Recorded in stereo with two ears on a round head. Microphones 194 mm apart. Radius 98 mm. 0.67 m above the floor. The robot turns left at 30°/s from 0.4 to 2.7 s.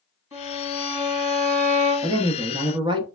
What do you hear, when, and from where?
0.3 s a violin: 160° right, 1.3 m; by 2.2 s 150° left, 1.3 m
2.0 s a woman speaking: 20° right (ahead or behind), 0.7 m